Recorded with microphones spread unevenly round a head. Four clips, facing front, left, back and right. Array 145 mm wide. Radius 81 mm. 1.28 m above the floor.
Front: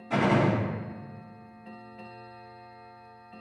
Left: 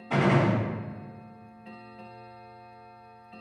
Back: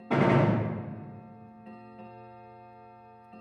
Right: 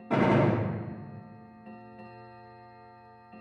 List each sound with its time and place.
0.1 s a gunshot: 150° right, 1.7 m